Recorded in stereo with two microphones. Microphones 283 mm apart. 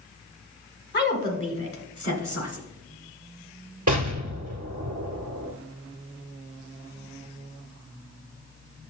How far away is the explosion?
About 1.0 m.